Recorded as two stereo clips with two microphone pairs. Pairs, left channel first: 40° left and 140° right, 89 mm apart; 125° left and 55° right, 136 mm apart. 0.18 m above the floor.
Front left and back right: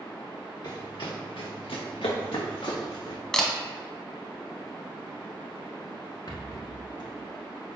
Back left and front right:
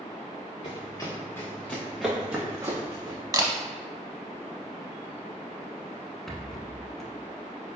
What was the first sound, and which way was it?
Running footsteps, 75° left.